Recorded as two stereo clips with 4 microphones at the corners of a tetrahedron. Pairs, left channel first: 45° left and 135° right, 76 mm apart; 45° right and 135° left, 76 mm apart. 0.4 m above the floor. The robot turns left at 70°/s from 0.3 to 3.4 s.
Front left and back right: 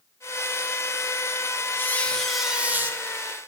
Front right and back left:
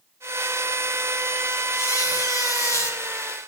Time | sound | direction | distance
1.7 | a squeak | 5° right | 0.7 m